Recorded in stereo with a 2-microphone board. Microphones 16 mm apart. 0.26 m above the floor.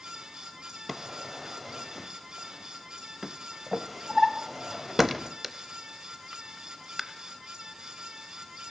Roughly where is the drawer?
Centre.